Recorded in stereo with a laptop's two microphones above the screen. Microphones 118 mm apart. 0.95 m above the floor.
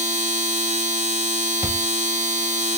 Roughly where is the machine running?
Right.